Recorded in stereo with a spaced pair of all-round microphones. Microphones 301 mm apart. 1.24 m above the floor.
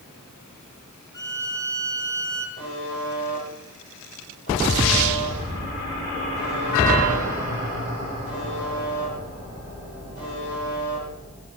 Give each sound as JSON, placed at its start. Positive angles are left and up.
{"t": 1.1, "sound": "a violin", "side_deg": 10, "distance_m": 1.5}
{"t": 2.6, "sound": "a buzzer", "side_deg": 35, "distance_m": 7.5}